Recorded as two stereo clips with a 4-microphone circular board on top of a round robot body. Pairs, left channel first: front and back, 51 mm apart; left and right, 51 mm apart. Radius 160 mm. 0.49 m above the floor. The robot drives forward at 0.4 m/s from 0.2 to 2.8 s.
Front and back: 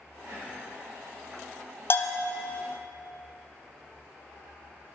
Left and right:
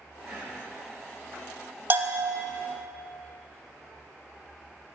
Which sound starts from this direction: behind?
Whispering, at 0.2 s.